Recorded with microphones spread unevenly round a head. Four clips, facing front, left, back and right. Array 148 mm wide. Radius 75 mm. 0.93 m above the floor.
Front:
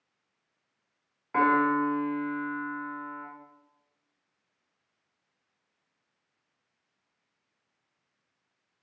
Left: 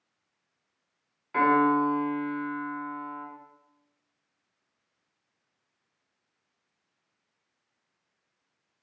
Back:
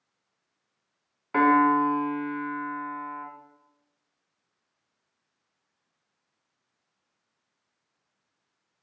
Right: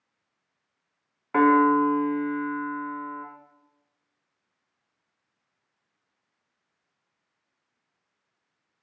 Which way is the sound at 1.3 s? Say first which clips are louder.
Right 4 dB, back 4 dB; 110° right.